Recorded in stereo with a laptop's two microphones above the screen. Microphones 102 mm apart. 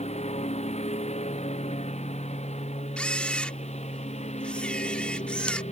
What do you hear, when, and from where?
0.0 s a lawn mower: 80° left; by 5.7 s 85° left
3.0 s a camera shutter: 10° left (ahead or behind)